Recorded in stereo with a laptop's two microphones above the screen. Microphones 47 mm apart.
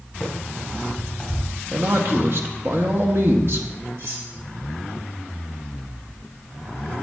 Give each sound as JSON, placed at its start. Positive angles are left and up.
{"t": 0.2, "sound": "running footsteps", "side_deg": 5, "distance_m": 4.5}
{"t": 1.7, "sound": "a man speaking", "side_deg": -55, "distance_m": 1.7}
{"t": 4.0, "sound": "cutlery clinking", "side_deg": -65, "distance_m": 3.5}